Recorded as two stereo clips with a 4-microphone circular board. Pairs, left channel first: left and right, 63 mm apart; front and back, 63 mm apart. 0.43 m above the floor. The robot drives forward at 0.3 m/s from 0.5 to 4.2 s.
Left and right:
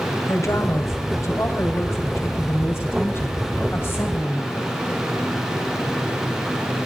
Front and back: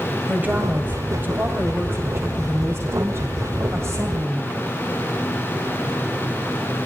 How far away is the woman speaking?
About 1.6 m.